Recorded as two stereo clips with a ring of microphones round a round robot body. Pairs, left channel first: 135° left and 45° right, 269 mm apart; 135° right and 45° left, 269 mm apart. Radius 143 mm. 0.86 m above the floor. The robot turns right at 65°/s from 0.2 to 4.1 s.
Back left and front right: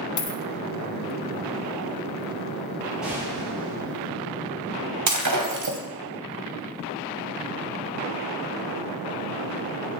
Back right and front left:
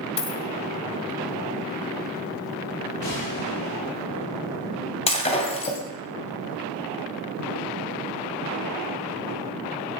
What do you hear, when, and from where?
0.2 s a dropped coin: 155° left, 1.1 m; by 0.4 s 175° left, 1.1 m
3.0 s a gunshot: 135° right, 9 m; by 4.0 s 65° right, 9 m
5.1 s breaking glass: 65° right, 2.5 m